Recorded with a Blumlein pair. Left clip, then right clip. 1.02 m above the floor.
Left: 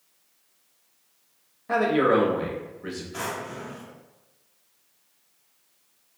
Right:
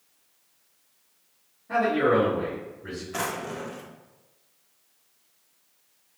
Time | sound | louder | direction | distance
1.7 | a man speaking | left 1 dB | 40° left | 1.0 m
3.1 | a drawer | right 3 dB | 65° right | 0.6 m